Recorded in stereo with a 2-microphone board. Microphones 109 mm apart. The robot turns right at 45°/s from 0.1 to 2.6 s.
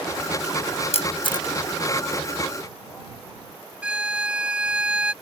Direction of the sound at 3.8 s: 10° right (ahead or behind).